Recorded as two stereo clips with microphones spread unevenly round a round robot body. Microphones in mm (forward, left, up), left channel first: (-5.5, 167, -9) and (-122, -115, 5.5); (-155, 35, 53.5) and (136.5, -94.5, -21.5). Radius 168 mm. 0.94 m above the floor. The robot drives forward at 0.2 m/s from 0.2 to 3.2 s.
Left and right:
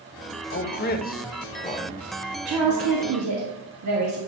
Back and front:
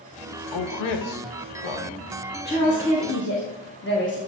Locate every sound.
0.5 s a man speaking: 120° left, 0.8 m; by 2.0 s 140° left, 0.9 m
2.5 s a woman speaking: 140° right, 1.3 m; by 4.2 s 145° right, 1.4 m